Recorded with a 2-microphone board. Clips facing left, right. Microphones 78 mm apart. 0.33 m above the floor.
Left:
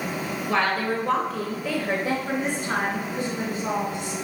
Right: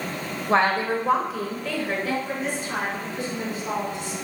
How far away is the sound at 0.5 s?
About 1.2 m.